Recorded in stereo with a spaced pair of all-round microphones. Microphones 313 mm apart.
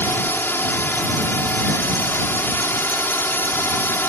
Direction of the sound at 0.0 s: 5° left (ahead or behind).